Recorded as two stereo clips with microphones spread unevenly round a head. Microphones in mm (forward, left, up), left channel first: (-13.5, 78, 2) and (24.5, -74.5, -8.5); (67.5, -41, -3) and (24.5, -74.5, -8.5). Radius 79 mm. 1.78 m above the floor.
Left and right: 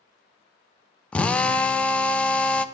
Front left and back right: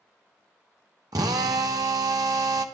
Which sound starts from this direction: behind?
A drill, at 1.1 s.